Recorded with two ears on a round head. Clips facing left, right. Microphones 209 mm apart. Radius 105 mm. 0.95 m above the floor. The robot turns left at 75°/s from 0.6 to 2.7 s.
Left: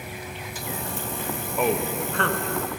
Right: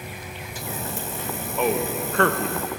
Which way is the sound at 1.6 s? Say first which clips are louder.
Right 1 dB; 5° left (ahead or behind).